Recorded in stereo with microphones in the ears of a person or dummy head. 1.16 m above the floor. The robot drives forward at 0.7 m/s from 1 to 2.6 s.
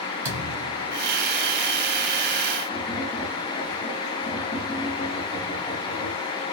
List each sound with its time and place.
0.2 s a thud: 10° right (ahead or behind), 1.8 m
2.7 s tapping: 5° left (ahead or behind), 1.8 m